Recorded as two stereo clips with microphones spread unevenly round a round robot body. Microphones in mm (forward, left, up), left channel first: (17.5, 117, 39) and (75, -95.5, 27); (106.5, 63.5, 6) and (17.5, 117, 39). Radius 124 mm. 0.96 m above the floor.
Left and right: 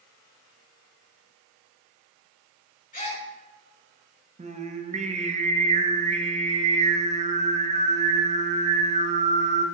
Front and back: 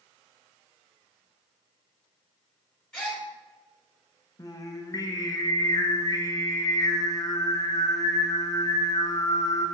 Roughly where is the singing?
Ahead right.